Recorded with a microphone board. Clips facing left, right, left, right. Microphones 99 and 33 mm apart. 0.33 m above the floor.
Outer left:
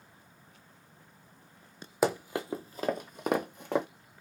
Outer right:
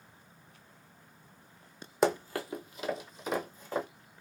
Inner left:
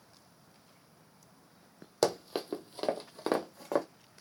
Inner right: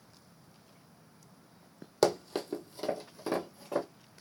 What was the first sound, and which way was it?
Running footsteps, 5° left (ahead or behind).